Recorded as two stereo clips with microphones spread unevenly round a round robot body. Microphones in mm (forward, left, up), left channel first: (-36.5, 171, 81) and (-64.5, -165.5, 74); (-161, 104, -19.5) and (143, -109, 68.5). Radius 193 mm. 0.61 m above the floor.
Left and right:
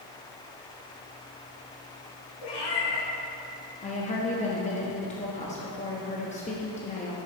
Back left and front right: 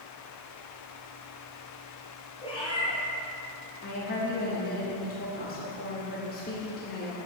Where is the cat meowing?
65° left, 2.5 m.